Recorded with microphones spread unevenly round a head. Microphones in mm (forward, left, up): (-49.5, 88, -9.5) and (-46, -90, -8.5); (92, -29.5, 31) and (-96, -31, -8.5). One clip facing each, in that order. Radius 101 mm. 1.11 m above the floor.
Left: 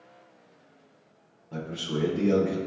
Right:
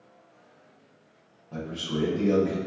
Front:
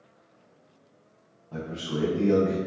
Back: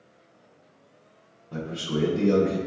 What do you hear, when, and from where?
1.5 s a man speaking: 160° left, 0.8 m